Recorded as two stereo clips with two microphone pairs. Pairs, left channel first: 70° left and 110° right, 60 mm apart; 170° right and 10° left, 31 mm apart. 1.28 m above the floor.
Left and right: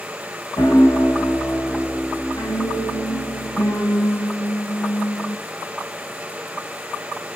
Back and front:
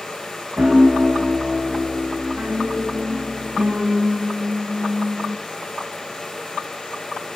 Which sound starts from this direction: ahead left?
A piano, at 0.6 s.